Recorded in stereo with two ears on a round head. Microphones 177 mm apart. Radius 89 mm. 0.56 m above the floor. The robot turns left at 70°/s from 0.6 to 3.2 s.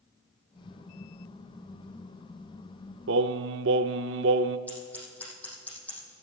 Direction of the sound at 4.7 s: 10° left (ahead or behind).